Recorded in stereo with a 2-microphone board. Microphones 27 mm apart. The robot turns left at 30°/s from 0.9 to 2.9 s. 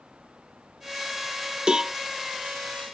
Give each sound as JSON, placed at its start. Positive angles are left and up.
{"t": 1.7, "sound": "a cowbell", "side_deg": -30}